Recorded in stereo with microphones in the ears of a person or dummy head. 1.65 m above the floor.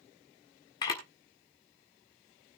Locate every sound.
0.8 s a camera shutter: 25° left (ahead or behind), 1.6 m